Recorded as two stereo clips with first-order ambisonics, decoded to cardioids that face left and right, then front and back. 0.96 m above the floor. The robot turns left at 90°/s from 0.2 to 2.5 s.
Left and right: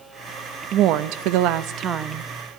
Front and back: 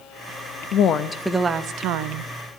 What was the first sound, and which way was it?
A woman speaking, 40° right.